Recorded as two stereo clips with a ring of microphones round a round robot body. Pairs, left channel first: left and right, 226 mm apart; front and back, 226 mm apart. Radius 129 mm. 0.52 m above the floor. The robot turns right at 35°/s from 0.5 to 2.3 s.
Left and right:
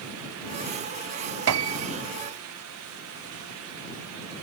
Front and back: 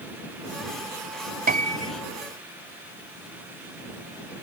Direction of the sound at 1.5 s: 120° right.